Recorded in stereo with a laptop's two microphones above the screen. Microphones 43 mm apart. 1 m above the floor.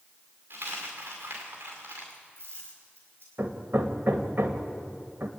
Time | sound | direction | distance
0.5 | a dropped coin | 55° right (ahead or behind) | 6 m
3.4 | hammering | 60° right (ahead or behind) | 2 m